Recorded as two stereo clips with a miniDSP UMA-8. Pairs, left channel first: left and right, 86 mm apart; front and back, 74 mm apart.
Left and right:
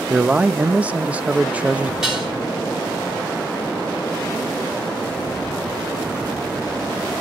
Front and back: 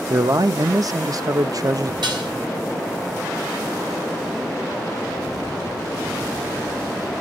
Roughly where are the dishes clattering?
Behind.